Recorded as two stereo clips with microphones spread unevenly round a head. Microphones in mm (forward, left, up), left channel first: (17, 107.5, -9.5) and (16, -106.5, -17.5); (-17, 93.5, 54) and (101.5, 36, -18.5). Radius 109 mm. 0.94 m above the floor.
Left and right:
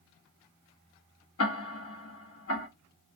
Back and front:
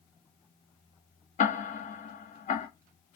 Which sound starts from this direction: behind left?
Ticking, at 1.4 s.